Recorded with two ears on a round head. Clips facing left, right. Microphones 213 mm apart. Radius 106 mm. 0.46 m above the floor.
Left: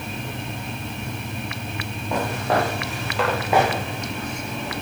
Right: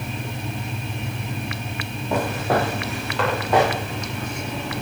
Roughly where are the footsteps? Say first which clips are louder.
Right 1 dB; centre.